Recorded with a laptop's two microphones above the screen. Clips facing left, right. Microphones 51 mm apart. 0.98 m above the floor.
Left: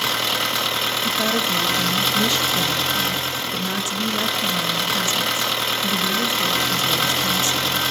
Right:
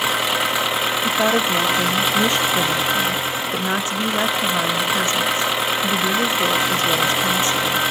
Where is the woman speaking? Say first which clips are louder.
Right 5 dB; 35° right (ahead or behind), 1.3 m.